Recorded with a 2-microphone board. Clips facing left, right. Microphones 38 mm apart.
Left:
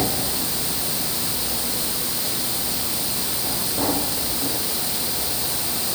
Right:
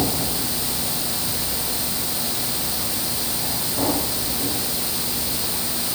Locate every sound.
Only background noise.